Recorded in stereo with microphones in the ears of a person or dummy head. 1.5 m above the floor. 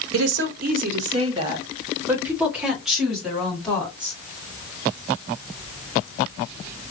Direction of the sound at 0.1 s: 70° right (ahead or behind).